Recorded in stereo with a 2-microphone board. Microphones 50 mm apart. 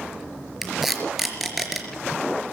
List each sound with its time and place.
0.6 s tape being pulled: 5° right (ahead or behind), 4.5 m